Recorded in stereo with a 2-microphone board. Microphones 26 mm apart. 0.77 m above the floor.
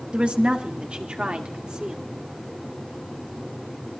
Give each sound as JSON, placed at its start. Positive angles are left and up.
{"t": 0.1, "sound": "a woman speaking", "side_deg": -45, "distance_m": 1.4}